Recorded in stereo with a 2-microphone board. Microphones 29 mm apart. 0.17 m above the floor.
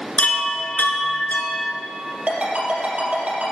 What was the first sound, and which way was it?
A chime, 55° left (ahead or behind).